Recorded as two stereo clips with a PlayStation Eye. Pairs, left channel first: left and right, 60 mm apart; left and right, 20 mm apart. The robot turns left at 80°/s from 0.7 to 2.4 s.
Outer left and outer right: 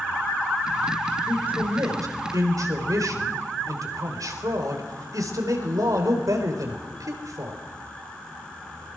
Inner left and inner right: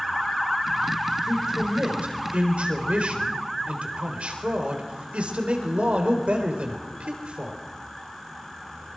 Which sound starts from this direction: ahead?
A man speaking, at 1.3 s.